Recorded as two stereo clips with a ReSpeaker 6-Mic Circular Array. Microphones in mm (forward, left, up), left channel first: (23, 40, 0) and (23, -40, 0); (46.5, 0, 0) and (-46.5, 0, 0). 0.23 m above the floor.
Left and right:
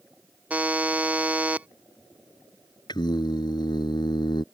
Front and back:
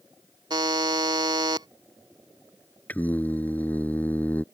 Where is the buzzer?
155° right.